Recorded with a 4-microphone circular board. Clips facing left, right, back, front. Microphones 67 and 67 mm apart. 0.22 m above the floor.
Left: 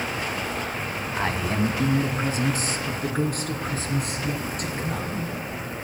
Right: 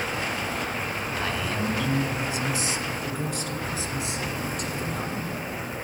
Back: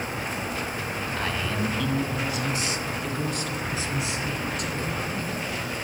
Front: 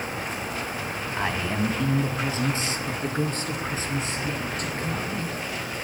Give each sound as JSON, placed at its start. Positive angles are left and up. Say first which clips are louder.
{"t": 1.2, "sound": "a man speaking", "louder": "left 5 dB, front 3 dB", "azimuth_deg": 55, "distance_m": 1.4}